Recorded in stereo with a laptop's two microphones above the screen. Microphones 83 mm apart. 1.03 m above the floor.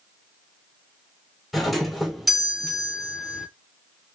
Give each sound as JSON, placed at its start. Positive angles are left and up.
{"t": 1.5, "sound": "a doorbell", "side_deg": -5, "distance_m": 1.1}